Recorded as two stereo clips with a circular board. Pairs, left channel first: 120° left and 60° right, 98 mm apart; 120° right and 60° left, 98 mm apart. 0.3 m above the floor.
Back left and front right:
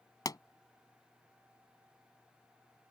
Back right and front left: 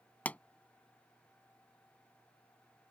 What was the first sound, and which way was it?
A pop, 165° left.